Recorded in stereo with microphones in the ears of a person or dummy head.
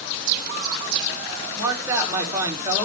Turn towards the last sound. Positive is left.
turn(degrees=-15)  # may be behind; listen again after turning